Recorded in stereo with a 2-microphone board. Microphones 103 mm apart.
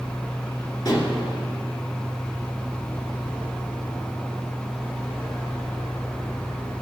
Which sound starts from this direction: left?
Dishes clattering, at 0.8 s.